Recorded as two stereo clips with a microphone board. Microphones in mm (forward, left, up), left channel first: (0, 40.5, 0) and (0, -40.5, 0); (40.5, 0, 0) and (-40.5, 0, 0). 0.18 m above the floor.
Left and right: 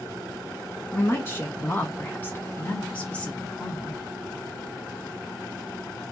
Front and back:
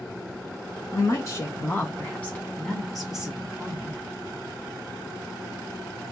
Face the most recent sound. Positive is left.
turn(degrees=170)